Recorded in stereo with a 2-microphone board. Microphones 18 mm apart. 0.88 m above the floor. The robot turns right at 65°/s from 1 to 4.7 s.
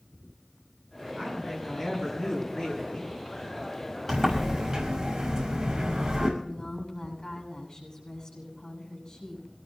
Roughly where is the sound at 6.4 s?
Left.